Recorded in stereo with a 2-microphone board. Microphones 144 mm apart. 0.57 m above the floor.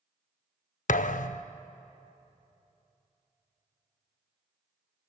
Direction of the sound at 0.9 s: 60° left (ahead or behind).